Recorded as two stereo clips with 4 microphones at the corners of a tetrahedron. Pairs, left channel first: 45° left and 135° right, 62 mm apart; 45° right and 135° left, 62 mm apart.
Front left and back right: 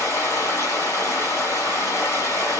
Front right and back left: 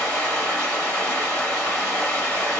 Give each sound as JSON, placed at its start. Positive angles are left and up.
{"t": 0.0, "sound": "running water", "azimuth_deg": 25, "distance_m": 1.8}